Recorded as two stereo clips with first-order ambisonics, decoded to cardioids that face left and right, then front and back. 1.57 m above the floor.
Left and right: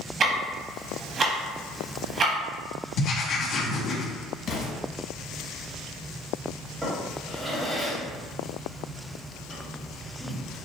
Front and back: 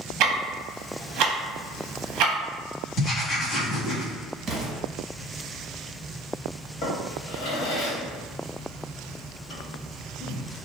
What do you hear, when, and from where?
0.2 s ticking: 150° right, 0.7 m
3.0 s writing: 60° left, 1.4 m
4.5 s an explosion: 125° left, 1.1 m
6.8 s a drawer: 15° right, 1.6 m